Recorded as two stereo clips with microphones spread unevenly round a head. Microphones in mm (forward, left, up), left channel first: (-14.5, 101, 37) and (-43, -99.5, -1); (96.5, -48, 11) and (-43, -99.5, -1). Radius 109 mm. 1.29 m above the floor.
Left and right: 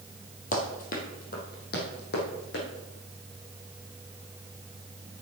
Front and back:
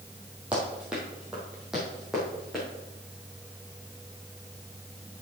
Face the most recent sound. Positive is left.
turn(degrees=110)